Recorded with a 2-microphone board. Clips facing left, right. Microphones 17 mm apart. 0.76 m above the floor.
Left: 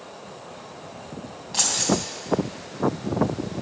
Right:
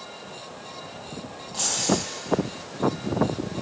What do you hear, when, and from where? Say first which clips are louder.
1.5 s keys jangling: left 2 dB; 40° left (ahead or behind), 3 m